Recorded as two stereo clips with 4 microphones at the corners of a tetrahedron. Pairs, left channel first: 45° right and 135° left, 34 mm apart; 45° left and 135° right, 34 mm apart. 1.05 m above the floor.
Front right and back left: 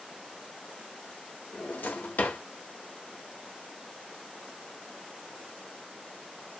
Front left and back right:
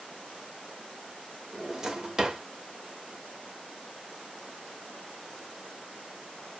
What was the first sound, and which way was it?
A drawer, 65° right.